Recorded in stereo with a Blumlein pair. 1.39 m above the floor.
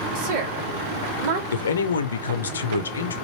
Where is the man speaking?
65° left, 0.5 m.